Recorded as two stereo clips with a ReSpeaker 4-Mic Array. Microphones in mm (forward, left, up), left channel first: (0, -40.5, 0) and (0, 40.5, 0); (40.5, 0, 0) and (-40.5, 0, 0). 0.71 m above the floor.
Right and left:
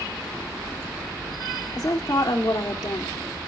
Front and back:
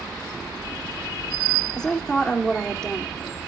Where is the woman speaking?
75° right, 2 m.